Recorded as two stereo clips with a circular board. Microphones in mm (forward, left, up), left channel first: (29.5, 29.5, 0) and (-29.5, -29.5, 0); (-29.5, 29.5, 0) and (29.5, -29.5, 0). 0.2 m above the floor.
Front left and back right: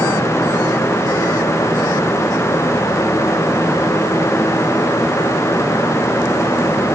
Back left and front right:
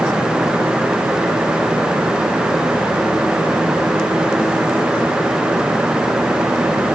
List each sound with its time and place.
Only background noise.